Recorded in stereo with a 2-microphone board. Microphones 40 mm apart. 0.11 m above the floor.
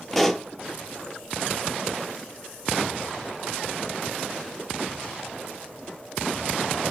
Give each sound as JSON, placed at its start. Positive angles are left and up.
{"t": 0.1, "sound": "a pop", "side_deg": 10, "distance_m": 0.7}